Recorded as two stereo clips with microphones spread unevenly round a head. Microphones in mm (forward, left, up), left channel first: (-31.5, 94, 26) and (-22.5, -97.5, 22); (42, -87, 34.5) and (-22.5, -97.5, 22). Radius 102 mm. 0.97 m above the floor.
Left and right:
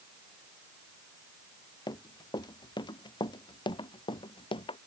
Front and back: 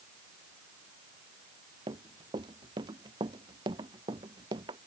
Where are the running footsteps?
165° left; by 4.8 s 155° left.